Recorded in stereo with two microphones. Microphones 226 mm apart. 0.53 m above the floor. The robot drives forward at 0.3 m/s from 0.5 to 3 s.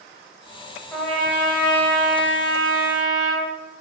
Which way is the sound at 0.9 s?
10° left (ahead or behind).